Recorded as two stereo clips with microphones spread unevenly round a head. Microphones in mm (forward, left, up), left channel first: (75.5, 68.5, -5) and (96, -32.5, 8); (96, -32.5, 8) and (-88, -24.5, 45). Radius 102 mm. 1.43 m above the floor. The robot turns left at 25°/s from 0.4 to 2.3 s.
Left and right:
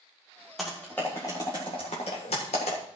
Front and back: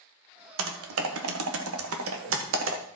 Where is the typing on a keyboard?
170° right, 1.5 m; by 2.8 s 150° left, 1.5 m.